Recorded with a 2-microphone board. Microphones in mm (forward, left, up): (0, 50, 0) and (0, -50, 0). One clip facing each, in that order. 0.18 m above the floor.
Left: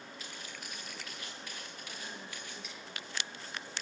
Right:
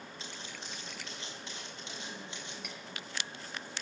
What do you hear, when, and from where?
0.2 s footsteps: 25° right (ahead or behind), 9.5 m; by 2.5 s 20° right (ahead or behind), 10.5 m
2.6 s cutlery clinking: 55° right (ahead or behind), 3 m